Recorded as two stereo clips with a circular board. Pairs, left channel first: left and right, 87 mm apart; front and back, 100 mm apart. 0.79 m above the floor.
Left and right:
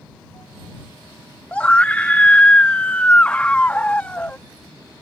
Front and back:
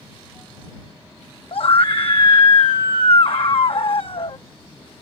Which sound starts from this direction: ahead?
A scream, at 1.5 s.